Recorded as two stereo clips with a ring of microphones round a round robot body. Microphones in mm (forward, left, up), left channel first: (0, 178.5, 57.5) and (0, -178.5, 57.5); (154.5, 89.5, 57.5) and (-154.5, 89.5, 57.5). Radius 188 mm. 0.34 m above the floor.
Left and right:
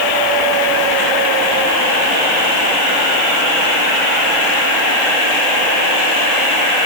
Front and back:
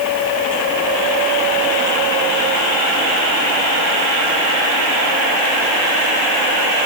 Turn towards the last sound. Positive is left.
No sound to turn to.